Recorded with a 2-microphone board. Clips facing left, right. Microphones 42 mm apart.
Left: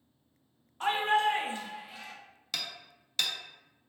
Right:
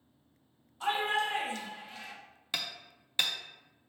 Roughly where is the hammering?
Centre.